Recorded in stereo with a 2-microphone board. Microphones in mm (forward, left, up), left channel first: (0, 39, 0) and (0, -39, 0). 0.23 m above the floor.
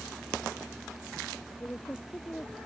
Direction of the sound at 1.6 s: 20° left (ahead or behind).